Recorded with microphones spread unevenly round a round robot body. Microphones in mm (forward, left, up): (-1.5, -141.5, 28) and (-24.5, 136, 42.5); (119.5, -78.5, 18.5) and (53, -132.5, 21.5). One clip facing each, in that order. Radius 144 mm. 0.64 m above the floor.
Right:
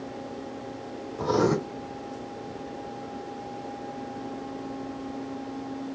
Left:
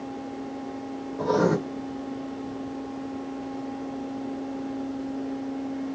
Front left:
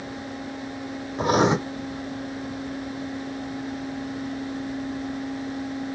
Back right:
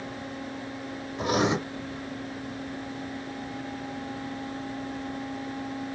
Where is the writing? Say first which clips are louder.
Left 1 dB, front left 5 dB; 15° right, 0.7 m.